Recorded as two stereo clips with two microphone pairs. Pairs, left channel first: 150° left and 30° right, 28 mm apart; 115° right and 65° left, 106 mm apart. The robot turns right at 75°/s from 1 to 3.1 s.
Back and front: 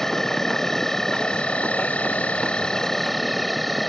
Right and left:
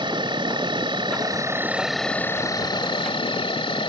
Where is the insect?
80° left; by 3.9 s 120° right.